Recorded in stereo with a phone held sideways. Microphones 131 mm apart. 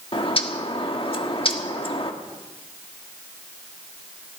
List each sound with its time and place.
0.1 s a bird: 45° left (ahead or behind), 1.5 m